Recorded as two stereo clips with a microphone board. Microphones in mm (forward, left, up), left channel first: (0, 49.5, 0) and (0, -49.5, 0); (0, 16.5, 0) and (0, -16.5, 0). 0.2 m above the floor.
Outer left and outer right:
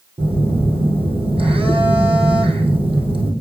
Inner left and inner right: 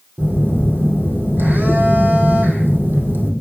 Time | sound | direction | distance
0.2 | a phone buzzing | 75° right (ahead or behind) | 2 m